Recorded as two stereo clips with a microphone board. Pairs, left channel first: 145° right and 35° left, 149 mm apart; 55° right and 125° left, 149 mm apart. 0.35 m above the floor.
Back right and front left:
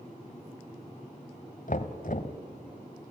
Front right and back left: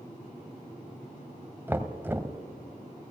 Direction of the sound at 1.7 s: 160° right.